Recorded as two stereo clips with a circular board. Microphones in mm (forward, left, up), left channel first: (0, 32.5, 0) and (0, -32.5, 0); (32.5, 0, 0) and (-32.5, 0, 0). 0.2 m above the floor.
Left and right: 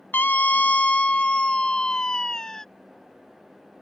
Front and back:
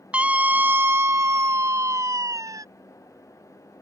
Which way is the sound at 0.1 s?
125° left.